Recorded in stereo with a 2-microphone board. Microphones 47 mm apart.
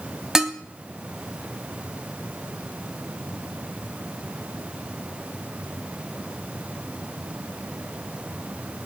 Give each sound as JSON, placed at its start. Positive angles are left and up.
{"t": 0.3, "sound": "dishes clattering", "side_deg": -10, "distance_m": 1.1}